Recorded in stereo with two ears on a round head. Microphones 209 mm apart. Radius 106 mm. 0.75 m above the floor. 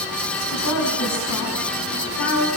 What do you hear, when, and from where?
0.5 s a woman speaking: 85° left, 6.5 m; by 2.5 s 80° left, 5 m